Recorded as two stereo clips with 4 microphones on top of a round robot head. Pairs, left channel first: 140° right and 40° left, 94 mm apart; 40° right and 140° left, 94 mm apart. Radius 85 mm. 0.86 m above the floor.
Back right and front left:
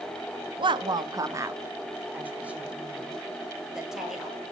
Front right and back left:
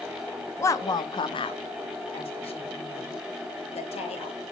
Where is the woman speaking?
20° left, 1.4 m; by 4.4 s 45° right, 5.5 m.